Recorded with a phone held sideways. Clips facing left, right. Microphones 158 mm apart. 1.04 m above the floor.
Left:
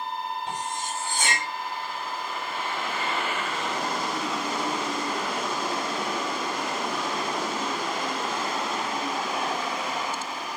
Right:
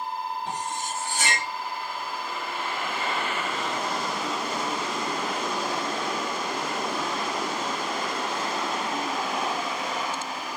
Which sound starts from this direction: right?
Cutlery clinking, at 0.5 s.